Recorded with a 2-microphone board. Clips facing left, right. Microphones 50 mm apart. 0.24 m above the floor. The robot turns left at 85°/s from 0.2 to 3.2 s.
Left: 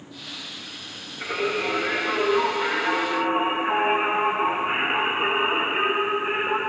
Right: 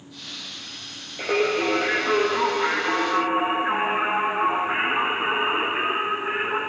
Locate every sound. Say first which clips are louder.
1.2 s singing: right 4 dB; 85° right, 7 m; by 6.6 s 105° left, 7 m